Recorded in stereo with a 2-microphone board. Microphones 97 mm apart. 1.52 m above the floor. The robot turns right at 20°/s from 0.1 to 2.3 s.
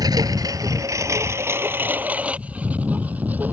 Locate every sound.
0.0 s a lawn mower: 40° right (ahead or behind); by 3.5 s 15° right (ahead or behind)